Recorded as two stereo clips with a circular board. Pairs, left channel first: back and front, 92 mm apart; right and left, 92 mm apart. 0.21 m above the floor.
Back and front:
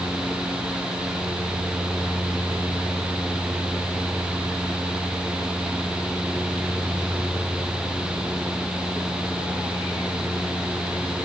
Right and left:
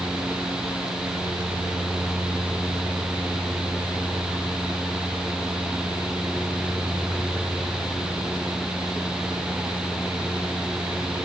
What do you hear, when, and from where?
Only background noise.